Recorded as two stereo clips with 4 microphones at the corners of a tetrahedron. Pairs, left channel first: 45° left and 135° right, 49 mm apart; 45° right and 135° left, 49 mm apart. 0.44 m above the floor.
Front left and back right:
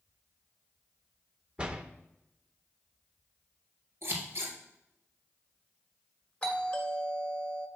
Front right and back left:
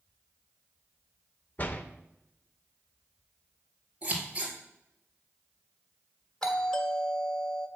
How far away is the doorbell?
About 1.3 m.